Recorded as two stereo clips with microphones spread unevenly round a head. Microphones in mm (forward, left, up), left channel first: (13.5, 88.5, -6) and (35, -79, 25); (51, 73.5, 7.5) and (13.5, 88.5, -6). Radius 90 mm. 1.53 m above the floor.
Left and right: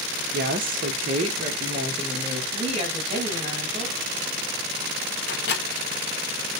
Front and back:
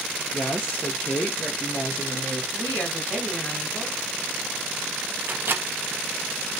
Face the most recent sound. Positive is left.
turn(degrees=125)